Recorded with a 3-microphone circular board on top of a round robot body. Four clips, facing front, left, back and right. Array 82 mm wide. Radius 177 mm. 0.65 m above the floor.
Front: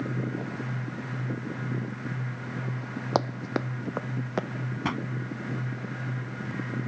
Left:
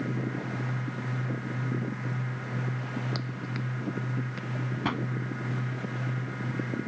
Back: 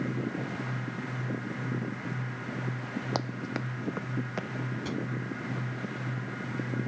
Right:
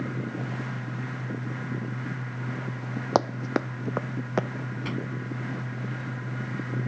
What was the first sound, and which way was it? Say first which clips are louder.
Running footsteps: right 11 dB, front 9 dB; 65° right.